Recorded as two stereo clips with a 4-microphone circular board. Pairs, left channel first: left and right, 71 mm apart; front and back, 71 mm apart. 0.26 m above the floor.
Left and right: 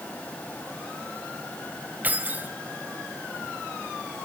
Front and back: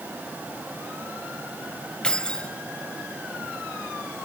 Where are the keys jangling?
60° right, 1.0 m.